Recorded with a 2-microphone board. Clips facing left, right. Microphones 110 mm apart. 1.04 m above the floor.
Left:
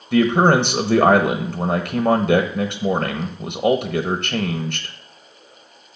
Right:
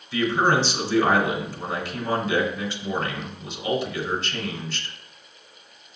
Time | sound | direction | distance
0.1 | a man speaking | 55° left (ahead or behind) | 0.7 m